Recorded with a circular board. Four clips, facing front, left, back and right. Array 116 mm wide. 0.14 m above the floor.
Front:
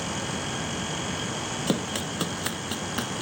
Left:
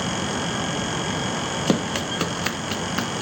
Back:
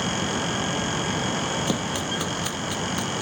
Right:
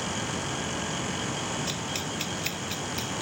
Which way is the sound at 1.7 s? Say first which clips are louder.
Left 10 dB, back 2 dB; 85° left.